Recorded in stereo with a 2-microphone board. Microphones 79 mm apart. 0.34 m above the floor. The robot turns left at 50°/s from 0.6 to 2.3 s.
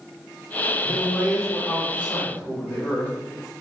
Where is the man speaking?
10° left (ahead or behind), 1.1 m; by 3.1 s 25° left (ahead or behind), 1.1 m.